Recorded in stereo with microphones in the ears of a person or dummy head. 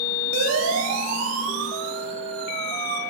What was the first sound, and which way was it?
A siren, 75° right (ahead or behind).